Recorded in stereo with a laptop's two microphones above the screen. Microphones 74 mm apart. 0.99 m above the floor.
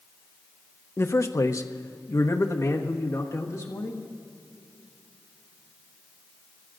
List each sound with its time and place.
1.0 s a man speaking: 35° left (ahead or behind), 0.6 m; by 4.1 s 45° left (ahead or behind), 2 m